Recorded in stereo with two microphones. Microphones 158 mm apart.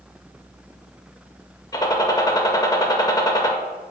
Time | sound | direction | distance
1.7 | a gunshot | 25° left (ahead or behind) | 0.5 m